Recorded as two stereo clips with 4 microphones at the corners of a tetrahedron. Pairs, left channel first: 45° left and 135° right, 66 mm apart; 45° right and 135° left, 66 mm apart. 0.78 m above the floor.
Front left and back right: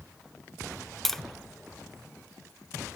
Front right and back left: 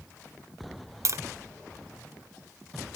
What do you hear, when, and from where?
1.1 s tapping: 130° left, 0.6 m